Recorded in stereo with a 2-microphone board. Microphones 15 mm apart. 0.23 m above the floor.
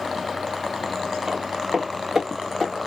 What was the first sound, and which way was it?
Footsteps, 65° right (ahead or behind).